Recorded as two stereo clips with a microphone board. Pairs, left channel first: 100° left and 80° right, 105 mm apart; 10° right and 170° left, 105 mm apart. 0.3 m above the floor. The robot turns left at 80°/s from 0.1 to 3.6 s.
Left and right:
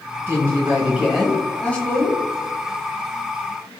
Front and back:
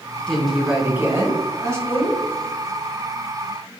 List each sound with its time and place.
0.3 s a woman speaking: 85° right, 1.0 m; by 2.2 s 115° left, 1.0 m